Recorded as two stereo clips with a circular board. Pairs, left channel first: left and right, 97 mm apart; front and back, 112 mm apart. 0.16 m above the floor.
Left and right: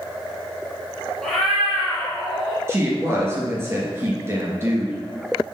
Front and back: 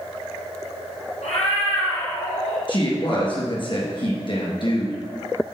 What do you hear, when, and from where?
1.2 s a cat meowing: 5° left, 1.8 m
2.7 s a woman speaking: 30° right, 2.5 m